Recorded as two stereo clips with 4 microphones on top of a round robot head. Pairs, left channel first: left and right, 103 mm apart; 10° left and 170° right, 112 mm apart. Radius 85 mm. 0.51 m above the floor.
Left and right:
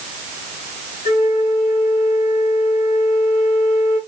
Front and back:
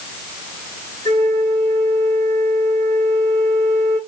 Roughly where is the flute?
Right.